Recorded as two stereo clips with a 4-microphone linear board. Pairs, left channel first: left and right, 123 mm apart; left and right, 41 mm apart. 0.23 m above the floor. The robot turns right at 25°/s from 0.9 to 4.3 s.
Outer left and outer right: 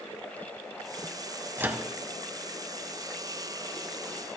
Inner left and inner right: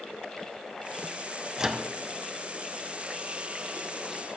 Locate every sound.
1.6 s a microwave: 15° right (ahead or behind), 1.2 m